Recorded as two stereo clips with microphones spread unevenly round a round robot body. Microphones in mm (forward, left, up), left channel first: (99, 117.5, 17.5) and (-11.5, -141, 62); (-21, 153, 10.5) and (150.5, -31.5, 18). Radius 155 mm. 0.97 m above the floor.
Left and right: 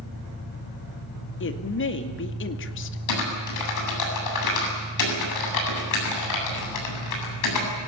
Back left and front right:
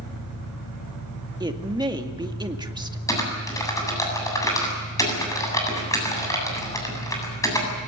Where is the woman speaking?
25° left, 2 m.